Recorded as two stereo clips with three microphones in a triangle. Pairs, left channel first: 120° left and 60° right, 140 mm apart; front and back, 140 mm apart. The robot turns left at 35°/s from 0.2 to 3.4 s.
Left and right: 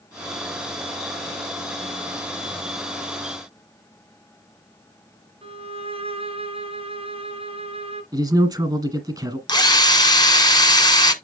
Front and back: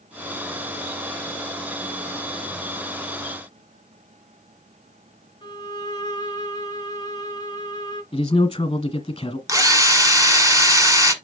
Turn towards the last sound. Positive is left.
turn(degrees=135)